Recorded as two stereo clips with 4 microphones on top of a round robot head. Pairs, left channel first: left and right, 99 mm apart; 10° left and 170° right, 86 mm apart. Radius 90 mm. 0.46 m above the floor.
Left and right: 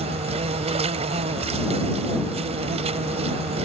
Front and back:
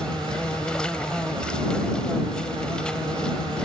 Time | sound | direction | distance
0.0 | an insect | 75° right | ?